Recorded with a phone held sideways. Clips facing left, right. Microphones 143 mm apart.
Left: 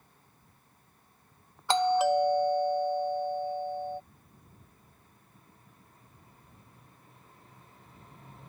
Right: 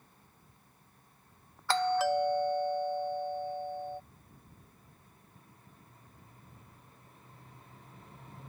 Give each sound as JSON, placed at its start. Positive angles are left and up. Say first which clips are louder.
{"t": 1.7, "sound": "a doorbell", "louder": "left 4 dB", "side_deg": 20}